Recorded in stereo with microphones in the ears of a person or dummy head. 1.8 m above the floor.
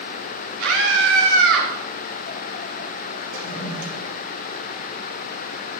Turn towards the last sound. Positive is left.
turn(degrees=-85)